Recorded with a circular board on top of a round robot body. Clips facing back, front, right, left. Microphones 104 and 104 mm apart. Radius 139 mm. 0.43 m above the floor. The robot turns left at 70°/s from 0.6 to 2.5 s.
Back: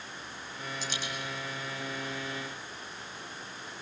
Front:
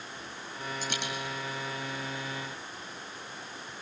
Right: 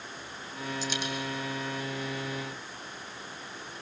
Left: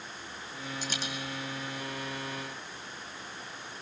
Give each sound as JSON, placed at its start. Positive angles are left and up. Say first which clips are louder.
{"t": 0.8, "sound": "a dropped coin", "louder": "front 3 dB, right 3 dB", "azimuth_deg": 45, "distance_m": 2.5}